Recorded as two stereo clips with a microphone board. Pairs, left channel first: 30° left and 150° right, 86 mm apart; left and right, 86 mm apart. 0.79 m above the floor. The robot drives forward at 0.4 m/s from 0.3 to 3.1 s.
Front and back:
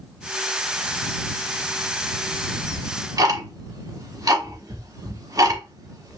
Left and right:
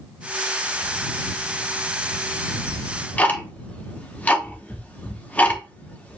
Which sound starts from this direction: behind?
Ticking, at 2.7 s.